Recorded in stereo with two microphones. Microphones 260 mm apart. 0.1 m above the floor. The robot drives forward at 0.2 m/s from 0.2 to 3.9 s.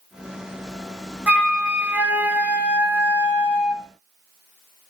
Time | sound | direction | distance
1.3 | a flute | 5° right (ahead or behind) | 0.6 m